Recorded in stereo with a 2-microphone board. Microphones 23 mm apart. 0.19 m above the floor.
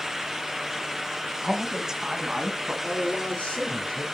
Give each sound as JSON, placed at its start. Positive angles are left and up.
{"t": 1.4, "sound": "a man speaking", "side_deg": -25, "distance_m": 1.0}
{"t": 2.8, "sound": "a man speaking", "side_deg": 65, "distance_m": 3.0}